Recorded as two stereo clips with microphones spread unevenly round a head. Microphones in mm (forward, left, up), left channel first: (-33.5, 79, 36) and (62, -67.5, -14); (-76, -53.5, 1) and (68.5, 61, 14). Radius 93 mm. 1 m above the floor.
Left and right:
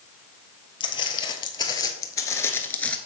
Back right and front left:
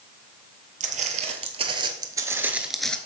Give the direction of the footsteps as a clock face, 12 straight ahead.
9 o'clock.